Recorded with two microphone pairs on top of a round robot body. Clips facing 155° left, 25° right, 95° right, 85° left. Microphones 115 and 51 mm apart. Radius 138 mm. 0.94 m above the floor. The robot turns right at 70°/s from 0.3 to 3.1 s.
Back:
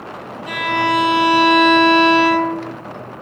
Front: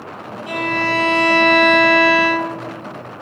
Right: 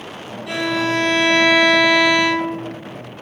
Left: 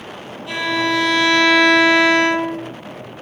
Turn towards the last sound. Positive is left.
turn(degrees=95)